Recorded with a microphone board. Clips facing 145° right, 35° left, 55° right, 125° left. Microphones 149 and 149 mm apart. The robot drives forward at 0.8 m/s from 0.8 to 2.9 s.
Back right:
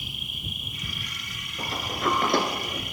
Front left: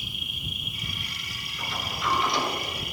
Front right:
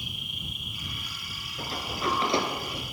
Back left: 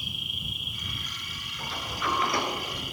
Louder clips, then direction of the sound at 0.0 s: Even, even; 155° right.